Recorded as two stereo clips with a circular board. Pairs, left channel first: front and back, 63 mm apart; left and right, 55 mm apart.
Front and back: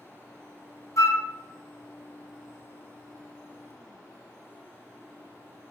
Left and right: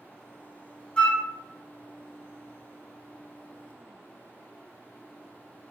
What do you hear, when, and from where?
1.0 s a flute: 20° left, 0.6 m